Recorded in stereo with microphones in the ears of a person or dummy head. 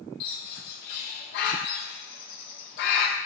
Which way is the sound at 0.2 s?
50° left (ahead or behind).